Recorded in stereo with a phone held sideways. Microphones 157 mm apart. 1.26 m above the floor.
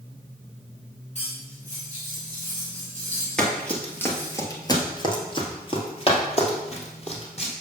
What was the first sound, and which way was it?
Cutlery clinking, 50° left (ahead or behind).